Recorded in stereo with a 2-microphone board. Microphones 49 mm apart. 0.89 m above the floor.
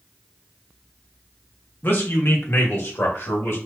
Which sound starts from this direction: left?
A man speaking, at 1.8 s.